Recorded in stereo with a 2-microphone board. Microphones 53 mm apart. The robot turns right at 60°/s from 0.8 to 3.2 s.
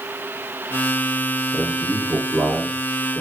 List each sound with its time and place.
1.5 s a man speaking: 110° right, 2.5 m; by 3.2 s 10° right, 2.5 m